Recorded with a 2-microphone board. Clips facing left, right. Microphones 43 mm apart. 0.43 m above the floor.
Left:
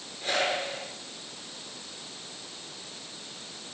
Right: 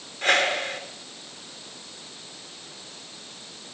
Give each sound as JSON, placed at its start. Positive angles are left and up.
{"t": 0.2, "sound": "a whoosh", "side_deg": -60, "distance_m": 7.5}